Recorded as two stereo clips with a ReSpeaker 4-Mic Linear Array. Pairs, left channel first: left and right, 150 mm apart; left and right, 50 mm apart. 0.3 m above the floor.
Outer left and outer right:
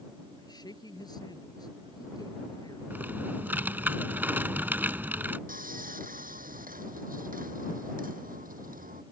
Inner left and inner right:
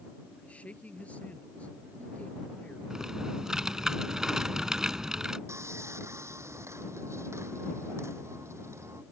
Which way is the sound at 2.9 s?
15° right (ahead or behind).